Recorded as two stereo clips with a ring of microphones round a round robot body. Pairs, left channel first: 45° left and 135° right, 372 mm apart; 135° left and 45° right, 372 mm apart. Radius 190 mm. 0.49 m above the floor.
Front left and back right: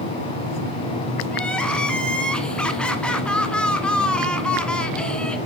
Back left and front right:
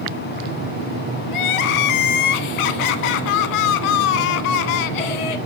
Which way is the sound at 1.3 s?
135° left.